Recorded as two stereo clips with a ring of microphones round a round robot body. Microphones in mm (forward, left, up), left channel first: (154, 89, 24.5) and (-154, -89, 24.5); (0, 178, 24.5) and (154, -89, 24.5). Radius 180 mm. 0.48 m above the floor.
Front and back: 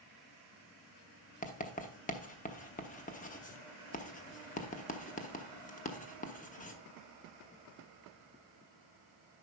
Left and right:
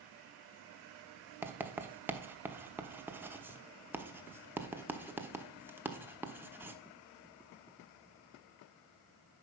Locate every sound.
1.4 s writing: 15° left, 0.9 m